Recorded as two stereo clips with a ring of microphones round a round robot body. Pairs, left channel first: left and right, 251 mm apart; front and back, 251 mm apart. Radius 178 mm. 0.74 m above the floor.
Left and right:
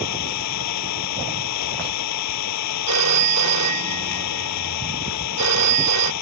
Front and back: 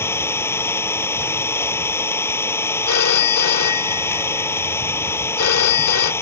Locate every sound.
0.0 s an engine running: 80° left
2.9 s a phone ringing: 50° right